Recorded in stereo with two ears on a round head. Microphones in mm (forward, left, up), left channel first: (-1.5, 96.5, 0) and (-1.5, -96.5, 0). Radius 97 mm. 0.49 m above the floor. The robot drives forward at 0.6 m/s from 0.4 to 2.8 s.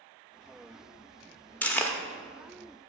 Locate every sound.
1.6 s chewing: 10° left (ahead or behind), 0.8 m